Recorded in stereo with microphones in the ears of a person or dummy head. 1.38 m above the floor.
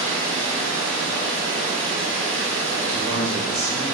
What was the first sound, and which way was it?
Running water, 20° right (ahead or behind).